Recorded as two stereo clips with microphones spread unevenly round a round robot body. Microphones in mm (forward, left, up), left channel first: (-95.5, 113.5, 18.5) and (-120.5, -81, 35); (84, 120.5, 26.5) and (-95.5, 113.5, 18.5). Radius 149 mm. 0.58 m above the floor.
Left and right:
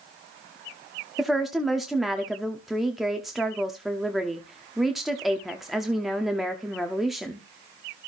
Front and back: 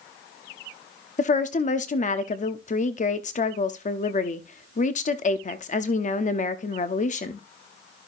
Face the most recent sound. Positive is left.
turn(degrees=-5)